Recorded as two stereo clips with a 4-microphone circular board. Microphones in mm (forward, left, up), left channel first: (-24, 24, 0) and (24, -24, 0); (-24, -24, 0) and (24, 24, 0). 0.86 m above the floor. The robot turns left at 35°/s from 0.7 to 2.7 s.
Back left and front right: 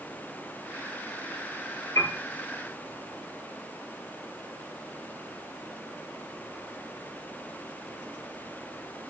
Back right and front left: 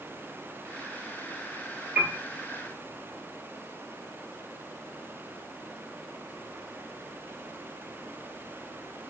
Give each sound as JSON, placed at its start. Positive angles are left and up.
{"t": 1.9, "sound": "a piano", "azimuth_deg": 110, "distance_m": 2.5}